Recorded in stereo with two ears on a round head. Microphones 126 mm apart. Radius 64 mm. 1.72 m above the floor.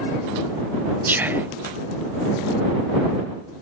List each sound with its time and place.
1.1 s whispering: 15° right (ahead or behind)